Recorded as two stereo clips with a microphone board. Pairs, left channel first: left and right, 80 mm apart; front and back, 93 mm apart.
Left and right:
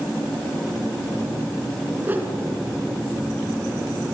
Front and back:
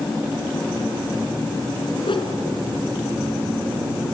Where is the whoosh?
25° right, 2.5 m.